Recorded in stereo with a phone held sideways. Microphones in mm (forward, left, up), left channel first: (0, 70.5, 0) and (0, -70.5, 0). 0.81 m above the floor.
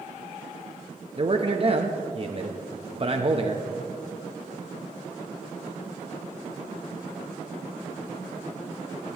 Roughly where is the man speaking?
Right.